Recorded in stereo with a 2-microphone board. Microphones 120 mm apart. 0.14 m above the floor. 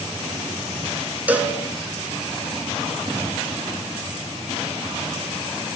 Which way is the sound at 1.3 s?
15° right (ahead or behind).